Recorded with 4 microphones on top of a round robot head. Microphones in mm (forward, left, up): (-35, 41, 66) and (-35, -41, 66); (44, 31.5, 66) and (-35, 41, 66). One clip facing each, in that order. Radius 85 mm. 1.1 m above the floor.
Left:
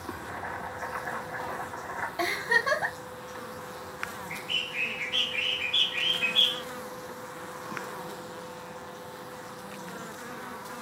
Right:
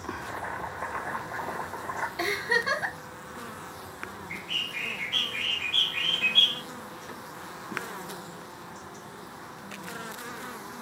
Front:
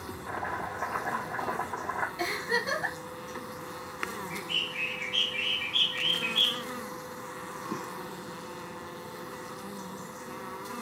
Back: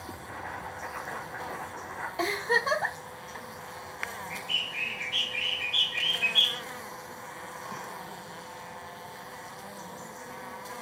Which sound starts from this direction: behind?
A bird, at 4.3 s.